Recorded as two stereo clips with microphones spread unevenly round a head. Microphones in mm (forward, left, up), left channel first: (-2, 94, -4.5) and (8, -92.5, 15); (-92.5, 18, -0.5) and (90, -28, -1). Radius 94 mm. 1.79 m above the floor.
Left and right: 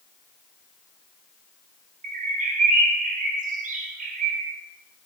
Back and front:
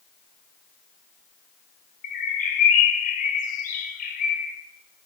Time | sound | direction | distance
2.0 | a bird | 140° right | 0.6 m